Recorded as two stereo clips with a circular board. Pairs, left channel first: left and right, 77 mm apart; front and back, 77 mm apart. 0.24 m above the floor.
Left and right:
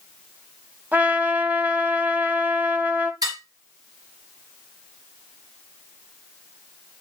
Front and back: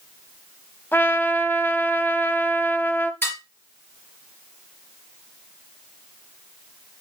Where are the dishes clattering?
60° right, 3 m.